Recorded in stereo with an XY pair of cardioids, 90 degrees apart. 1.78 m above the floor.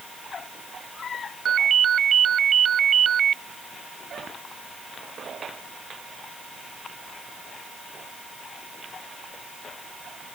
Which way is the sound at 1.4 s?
60° right.